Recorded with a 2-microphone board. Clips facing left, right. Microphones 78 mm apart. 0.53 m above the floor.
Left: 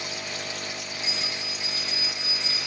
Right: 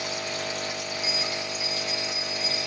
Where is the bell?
30° left (ahead or behind), 5.5 m.